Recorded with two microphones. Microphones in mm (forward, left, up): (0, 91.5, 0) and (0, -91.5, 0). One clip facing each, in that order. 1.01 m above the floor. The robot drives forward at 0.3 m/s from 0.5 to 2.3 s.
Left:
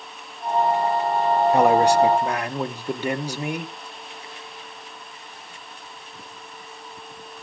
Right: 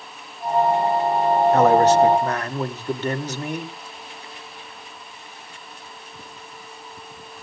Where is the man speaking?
15° left (ahead or behind), 0.9 m; by 3.8 s 10° left (ahead or behind), 1.2 m.